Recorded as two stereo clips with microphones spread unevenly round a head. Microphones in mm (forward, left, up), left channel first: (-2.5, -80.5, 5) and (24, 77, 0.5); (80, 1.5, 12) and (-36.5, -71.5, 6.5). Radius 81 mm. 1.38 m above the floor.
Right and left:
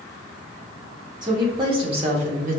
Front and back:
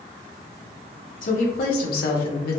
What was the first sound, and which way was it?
A woman speaking, 15° left.